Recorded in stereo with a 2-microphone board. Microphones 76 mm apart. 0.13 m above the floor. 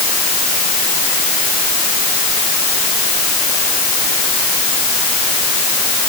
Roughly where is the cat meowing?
No cat meowing in this recording.